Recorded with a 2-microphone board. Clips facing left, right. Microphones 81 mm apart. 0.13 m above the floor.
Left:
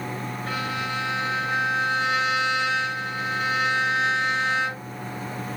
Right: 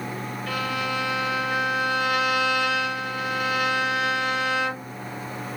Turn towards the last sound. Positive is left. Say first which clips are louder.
# right 2 dB
turn(degrees=35)  # may be behind; listen again after turning